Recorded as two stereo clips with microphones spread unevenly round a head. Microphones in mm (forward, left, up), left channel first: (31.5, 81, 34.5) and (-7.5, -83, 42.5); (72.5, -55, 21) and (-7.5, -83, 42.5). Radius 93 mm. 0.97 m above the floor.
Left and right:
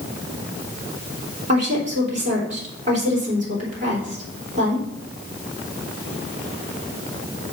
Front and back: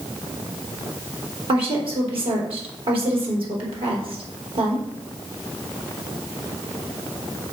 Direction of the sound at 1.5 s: 150° right.